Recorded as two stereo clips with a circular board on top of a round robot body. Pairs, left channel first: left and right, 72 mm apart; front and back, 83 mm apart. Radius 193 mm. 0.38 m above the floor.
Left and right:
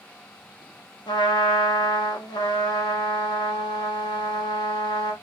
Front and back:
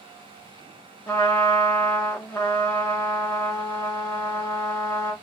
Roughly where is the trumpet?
Ahead left.